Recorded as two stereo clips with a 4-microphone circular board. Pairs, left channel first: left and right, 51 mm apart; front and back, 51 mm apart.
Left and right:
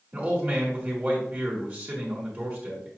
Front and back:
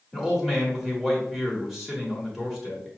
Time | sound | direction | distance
0.1 | a man speaking | 100° right | 1.7 m